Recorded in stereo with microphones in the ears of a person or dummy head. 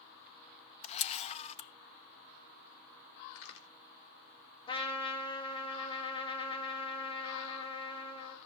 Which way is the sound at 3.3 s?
70° left (ahead or behind).